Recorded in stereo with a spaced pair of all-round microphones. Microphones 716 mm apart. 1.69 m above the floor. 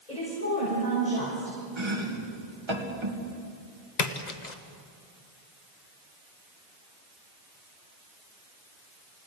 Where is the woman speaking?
65° left (ahead or behind), 7.5 m.